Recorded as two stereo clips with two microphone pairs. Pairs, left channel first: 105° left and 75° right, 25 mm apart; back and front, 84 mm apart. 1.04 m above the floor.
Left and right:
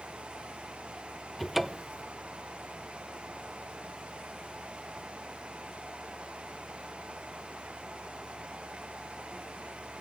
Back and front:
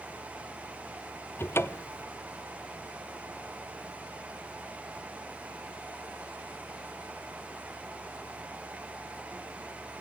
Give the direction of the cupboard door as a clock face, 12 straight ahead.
5 o'clock.